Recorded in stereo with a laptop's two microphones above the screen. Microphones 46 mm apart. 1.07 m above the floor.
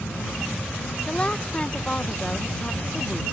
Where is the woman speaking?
25° left (ahead or behind).